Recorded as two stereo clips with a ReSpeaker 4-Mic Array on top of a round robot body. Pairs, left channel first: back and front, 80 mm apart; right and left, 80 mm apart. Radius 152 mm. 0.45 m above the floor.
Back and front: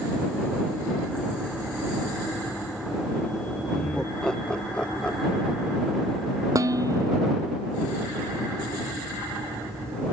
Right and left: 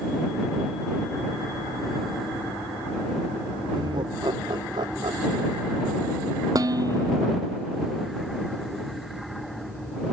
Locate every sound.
3.7 s laughter: 100° left
6.5 s dishes clattering: 45° left